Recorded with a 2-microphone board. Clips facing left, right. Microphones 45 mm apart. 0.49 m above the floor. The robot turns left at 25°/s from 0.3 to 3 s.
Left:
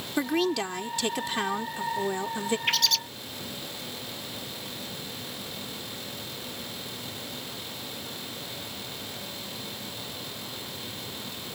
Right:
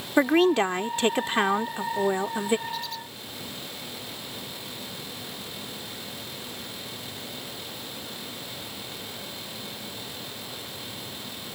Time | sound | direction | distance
0.2 | a woman speaking | 85° right | ?
2.7 | a bird | 80° left | ?